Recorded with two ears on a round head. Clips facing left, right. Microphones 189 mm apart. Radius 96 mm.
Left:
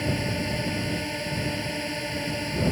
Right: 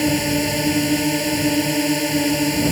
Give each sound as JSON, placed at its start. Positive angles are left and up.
{"t": 0.0, "sound": "a drone", "side_deg": -60}